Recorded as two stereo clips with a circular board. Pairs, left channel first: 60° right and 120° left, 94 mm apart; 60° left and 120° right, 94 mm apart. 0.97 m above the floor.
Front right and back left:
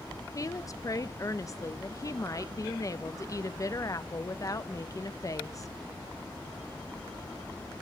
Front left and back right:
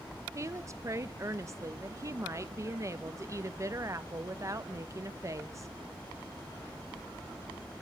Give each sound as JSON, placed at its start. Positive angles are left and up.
{"t": 0.3, "sound": "a woman speaking", "azimuth_deg": -85, "distance_m": 0.6}